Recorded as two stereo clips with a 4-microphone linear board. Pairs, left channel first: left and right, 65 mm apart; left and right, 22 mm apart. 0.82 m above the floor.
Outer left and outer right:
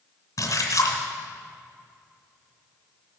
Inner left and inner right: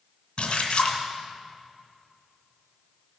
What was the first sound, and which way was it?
A splash, 60° left (ahead or behind).